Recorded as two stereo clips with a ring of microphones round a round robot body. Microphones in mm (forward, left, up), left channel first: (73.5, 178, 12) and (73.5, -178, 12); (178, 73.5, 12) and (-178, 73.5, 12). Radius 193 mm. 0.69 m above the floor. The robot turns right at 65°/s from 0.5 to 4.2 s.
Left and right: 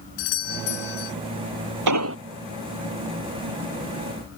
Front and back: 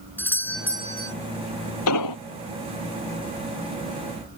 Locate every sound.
0.2 s a doorbell: 85° left; by 1.1 s 125° left
1.9 s an explosion: 55° right; by 2.2 s 35° right